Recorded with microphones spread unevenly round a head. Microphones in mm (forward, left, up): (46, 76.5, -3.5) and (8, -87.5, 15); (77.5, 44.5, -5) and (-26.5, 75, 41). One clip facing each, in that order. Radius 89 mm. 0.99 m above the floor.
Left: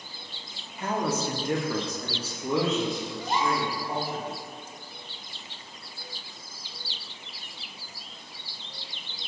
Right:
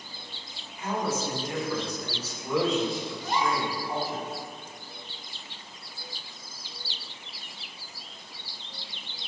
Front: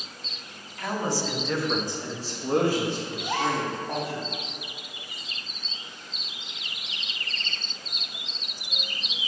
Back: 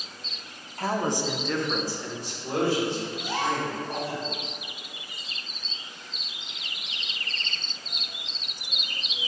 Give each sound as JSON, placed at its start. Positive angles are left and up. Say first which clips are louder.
{"t": 0.8, "sound": "a man speaking", "louder": "left 1 dB, back 2 dB", "azimuth_deg": 100, "distance_m": 1.1}
{"t": 3.2, "sound": "a gasp", "louder": "left 1 dB, front 2 dB", "azimuth_deg": 10, "distance_m": 1.9}